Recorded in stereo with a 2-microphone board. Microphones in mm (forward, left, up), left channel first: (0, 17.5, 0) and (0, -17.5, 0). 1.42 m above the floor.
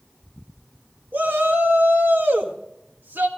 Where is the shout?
70° right (ahead or behind), 1.7 m.